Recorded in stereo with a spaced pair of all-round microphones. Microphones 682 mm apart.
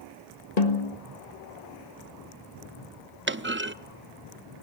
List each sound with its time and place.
0.6 s a snare drum: 70° left (ahead or behind), 1.9 m
3.3 s a clunk: 20° right (ahead or behind), 0.6 m